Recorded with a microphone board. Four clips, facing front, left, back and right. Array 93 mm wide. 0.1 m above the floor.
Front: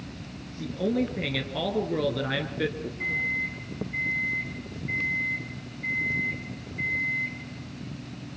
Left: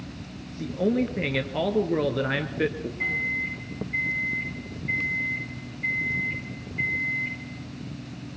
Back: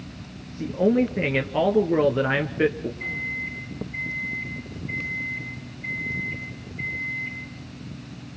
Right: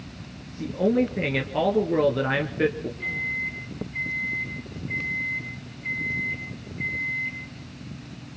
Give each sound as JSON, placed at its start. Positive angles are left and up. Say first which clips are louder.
{"t": 0.6, "sound": "a man speaking", "louder": "right 2 dB, back 6 dB", "azimuth_deg": -175, "distance_m": 1.5}
{"t": 3.0, "sound": "a microwave", "louder": "left 3 dB, front 2 dB", "azimuth_deg": 70, "distance_m": 8.5}